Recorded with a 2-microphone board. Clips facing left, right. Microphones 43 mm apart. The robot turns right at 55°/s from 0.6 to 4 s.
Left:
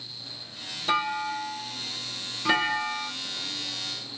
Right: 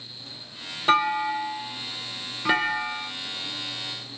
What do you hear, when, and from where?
0.9 s a clunk: 110° right, 0.7 m; by 3.1 s 10° left, 0.7 m